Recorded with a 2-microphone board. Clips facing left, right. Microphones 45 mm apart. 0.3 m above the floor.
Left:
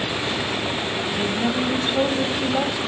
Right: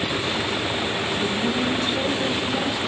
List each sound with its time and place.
1.2 s a woman speaking: 30° left (ahead or behind), 1.9 m